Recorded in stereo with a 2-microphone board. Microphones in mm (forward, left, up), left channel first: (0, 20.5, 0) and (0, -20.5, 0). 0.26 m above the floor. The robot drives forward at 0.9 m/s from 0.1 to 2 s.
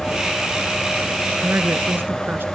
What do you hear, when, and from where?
1.4 s a woman speaking: 55° right (ahead or behind); by 2.5 s 60° right (ahead or behind)